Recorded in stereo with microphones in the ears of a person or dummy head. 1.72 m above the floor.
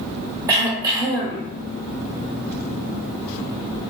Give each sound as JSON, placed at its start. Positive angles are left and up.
{"t": 0.5, "sound": "throat clearing", "side_deg": -20, "distance_m": 0.7}